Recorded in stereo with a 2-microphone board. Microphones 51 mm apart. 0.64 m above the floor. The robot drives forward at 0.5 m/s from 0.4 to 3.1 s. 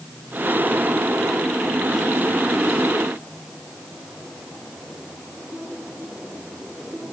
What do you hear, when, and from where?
Only background noise.